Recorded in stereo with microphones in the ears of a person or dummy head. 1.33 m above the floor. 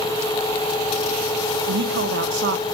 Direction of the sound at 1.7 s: 60° right (ahead or behind).